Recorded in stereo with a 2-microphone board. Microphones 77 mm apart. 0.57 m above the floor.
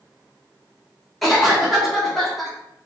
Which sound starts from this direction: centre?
A cough, at 1.2 s.